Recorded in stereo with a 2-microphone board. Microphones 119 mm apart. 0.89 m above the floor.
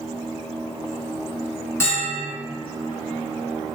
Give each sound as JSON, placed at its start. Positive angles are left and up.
{"t": 1.8, "sound": "a bell", "side_deg": 20, "distance_m": 1.5}